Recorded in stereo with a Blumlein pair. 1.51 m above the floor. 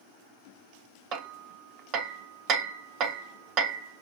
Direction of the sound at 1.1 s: 35° right.